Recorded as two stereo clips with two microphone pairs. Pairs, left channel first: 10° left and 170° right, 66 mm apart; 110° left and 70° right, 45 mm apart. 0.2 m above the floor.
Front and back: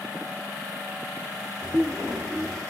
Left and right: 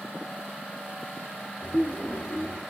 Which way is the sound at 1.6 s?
115° left.